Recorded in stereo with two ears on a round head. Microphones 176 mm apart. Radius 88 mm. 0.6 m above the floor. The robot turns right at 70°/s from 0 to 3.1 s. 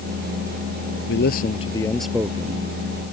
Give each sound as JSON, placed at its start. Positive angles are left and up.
{"t": 1.1, "sound": "a man speaking", "azimuth_deg": 115}